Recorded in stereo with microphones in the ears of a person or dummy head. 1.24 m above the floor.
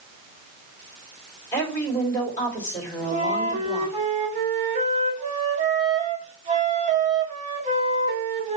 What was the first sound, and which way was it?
A woman speaking, 20° left (ahead or behind).